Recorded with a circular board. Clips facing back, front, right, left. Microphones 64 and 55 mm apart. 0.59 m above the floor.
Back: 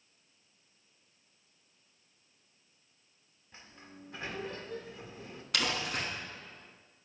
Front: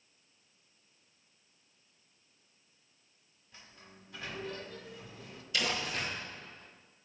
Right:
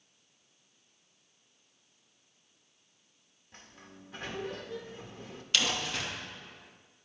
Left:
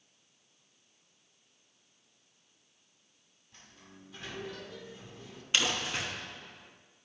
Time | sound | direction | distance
3.5 | a sliding door | 125° right | 1.2 m
5.5 | crumpling | 160° left | 4 m